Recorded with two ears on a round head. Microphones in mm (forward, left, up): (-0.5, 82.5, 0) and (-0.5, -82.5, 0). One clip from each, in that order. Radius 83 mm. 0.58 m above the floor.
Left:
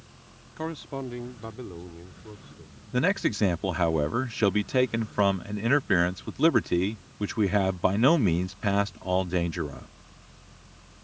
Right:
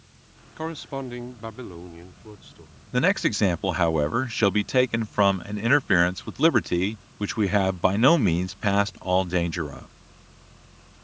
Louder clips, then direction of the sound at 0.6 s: Right 3 dB; 10° right (ahead or behind).